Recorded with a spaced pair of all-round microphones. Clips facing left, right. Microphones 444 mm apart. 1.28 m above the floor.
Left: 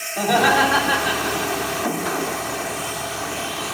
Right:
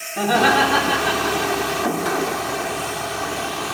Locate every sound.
0.2 s laughter: 30° right (ahead or behind), 3.5 m; by 1.7 s 10° right (ahead or behind), 4 m